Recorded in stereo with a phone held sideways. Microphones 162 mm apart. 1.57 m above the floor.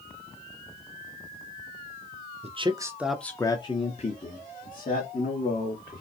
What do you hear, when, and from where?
2.4 s a man speaking: 40° right (ahead or behind), 0.6 m; by 6.0 s 65° left (ahead or behind), 1.7 m